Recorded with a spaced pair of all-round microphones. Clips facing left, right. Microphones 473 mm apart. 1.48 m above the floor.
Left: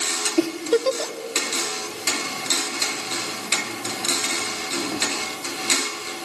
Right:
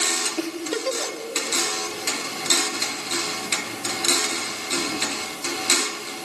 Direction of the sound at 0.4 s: 55° left (ahead or behind).